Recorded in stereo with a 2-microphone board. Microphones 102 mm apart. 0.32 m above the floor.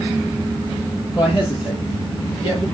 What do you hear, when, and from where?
1.1 s a man speaking: 45° left (ahead or behind), 6.5 m; by 2.6 s 60° left (ahead or behind), 5 m